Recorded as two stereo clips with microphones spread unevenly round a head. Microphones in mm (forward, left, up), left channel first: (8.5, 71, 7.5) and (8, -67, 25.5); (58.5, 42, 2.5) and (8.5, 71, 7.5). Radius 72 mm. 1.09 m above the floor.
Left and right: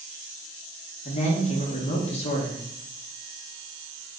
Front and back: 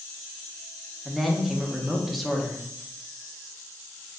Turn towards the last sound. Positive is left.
turn(degrees=60)